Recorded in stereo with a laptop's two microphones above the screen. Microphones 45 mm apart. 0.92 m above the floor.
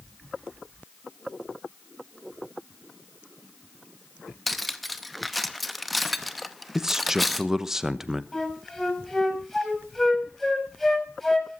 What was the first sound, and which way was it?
Cutlery clinking, centre (ahead or behind).